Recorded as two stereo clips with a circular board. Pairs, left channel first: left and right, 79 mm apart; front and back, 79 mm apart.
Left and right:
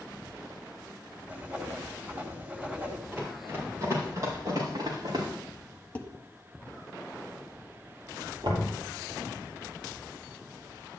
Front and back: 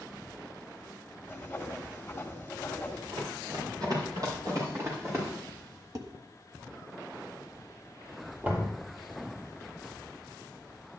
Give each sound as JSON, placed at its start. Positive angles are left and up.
{"t": 1.3, "sound": "writing", "azimuth_deg": -40, "distance_m": 1.7}
{"t": 3.1, "sound": "running footsteps", "azimuth_deg": -155, "distance_m": 5.5}
{"t": 6.0, "sound": "dishes clattering", "azimuth_deg": 155, "distance_m": 1.3}
{"t": 8.4, "sound": "knocking", "azimuth_deg": -115, "distance_m": 4.0}